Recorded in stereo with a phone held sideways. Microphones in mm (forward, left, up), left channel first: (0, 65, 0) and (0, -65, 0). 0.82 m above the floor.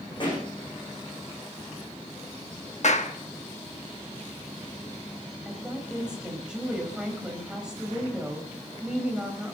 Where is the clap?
65° left (ahead or behind), 1.2 m.